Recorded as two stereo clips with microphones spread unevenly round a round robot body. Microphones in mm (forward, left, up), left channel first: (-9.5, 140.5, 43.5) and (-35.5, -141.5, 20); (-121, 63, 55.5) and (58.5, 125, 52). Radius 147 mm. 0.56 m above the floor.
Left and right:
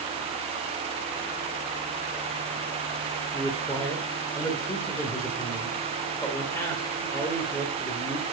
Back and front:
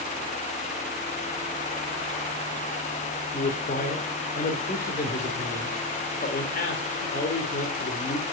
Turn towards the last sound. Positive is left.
turn(degrees=165)